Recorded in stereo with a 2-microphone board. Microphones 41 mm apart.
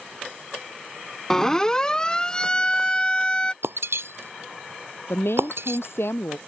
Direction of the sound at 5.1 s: 80° left.